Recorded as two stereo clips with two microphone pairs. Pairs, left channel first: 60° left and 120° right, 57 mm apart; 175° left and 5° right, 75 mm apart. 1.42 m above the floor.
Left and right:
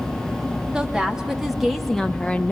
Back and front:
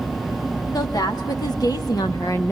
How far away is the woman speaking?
About 2.5 m.